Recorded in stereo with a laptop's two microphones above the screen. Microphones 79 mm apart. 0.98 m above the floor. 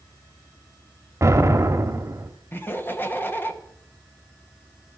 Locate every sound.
1.2 s an explosion: 40° right (ahead or behind), 0.9 m
2.5 s laughter: 25° left (ahead or behind), 0.8 m